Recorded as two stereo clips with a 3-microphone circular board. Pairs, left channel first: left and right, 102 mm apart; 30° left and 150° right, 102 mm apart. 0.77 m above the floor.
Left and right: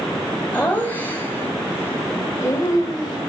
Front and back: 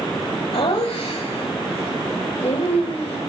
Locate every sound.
0.5 s laughter: 15° left, 4 m; by 3.2 s 40° left, 4 m